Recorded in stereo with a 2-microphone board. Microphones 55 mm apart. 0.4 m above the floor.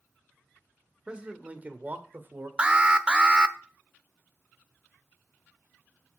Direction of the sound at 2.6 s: 20° right (ahead or behind).